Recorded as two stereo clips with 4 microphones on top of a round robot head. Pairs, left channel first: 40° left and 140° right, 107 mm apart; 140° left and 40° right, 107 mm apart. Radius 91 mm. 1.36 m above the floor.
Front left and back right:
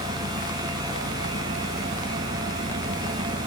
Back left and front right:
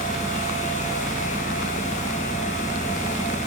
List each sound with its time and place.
0.0 s an engine running: 110° right